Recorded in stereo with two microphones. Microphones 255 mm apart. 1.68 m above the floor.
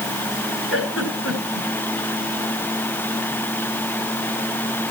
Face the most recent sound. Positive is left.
turn(degrees=60)  # may be behind; listen again after turning